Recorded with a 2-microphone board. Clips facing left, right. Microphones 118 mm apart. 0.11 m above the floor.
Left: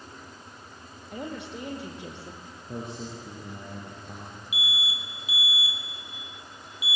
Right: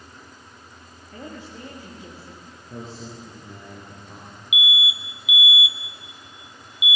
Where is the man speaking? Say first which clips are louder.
Left 1 dB; 65° left (ahead or behind), 5.5 m.